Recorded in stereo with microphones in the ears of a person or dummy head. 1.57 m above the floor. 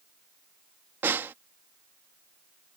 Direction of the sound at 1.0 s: 10° right (ahead or behind).